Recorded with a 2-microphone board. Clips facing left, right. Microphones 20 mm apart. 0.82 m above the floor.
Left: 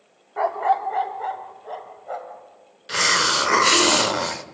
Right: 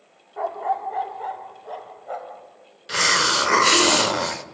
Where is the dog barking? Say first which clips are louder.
Left 4 dB; 70° left (ahead or behind), 0.7 m; by 2.4 s 5° left (ahead or behind), 2 m.